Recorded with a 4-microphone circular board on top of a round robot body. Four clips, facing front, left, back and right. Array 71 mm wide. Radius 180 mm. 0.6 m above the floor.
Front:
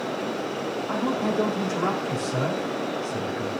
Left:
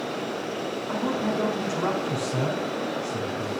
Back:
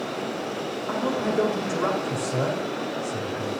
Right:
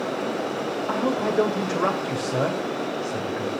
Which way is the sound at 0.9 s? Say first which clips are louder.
Right 2 dB, back 1 dB; 110° right.